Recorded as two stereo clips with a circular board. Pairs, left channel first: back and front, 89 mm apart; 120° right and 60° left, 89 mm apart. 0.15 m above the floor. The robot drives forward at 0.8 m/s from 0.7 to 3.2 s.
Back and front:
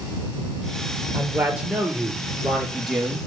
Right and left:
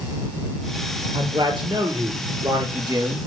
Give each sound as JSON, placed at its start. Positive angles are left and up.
{"t": 1.1, "sound": "a man speaking", "azimuth_deg": 65, "distance_m": 3.5}